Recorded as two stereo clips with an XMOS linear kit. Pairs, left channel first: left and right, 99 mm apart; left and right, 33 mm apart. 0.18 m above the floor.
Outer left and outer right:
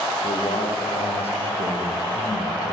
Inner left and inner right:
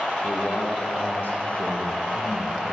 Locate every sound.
0.2 s a man speaking: 70° left (ahead or behind), 9 m; by 2.8 s 85° left, 11.5 m